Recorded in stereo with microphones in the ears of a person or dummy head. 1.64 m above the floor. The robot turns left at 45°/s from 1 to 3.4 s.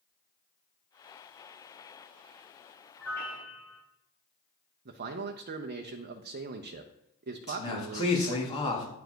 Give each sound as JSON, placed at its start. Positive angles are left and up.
{"t": 3.0, "sound": "a piano", "side_deg": 5, "distance_m": 4.0}
{"t": 4.8, "sound": "a man speaking", "side_deg": -45, "distance_m": 0.7}
{"t": 7.5, "sound": "a man speaking", "side_deg": 30, "distance_m": 2.5}